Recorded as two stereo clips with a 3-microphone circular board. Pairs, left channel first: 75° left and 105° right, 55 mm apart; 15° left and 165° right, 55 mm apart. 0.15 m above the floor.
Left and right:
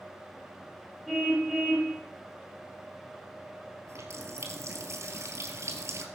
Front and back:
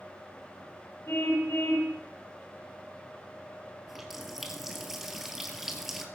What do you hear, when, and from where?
1.1 s a car horn: 25° right, 9 m
3.9 s a running tap: 80° right, 2 m